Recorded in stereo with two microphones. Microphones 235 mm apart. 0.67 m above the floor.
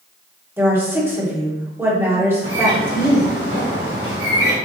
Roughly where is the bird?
Right.